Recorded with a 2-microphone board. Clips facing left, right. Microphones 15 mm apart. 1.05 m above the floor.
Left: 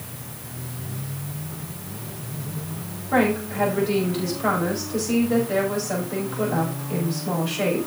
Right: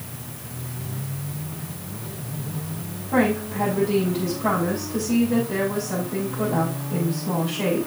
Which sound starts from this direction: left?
A woman speaking, at 3.1 s.